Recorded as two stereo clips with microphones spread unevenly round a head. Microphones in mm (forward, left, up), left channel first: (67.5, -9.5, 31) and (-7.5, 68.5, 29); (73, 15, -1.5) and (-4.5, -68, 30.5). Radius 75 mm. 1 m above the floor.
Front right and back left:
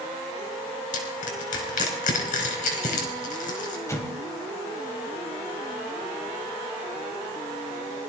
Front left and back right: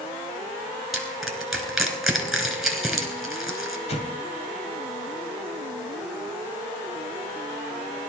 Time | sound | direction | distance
0.9 | crushing | 45° right | 4.5 m
3.9 | an explosion | 15° left | 3 m